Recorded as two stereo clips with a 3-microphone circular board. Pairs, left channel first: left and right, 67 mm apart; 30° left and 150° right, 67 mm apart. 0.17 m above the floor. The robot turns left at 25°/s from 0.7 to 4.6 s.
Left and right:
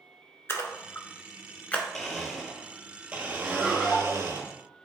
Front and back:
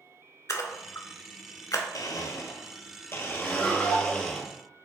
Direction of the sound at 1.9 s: 10° left.